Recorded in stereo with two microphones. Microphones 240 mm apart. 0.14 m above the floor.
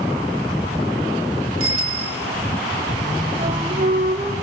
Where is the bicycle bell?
65° right (ahead or behind), 2.5 m.